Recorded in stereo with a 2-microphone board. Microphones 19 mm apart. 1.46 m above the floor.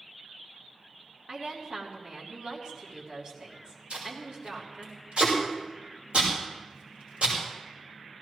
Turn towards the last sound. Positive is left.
turn(degrees=-85)